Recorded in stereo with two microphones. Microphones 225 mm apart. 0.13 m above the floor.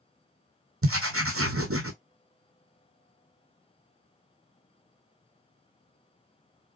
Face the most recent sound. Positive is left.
turn(degrees=-80)